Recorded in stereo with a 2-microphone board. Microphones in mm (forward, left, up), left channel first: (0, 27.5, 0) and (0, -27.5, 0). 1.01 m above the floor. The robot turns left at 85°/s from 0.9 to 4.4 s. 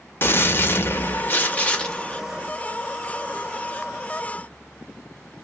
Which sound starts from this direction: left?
A gunshot, at 0.2 s.